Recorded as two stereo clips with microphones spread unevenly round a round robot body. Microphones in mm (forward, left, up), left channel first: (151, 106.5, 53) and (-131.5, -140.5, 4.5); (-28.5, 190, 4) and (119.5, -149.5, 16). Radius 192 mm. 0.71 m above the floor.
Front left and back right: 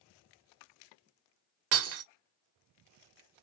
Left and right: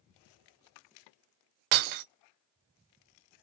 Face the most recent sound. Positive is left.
turn(degrees=-85)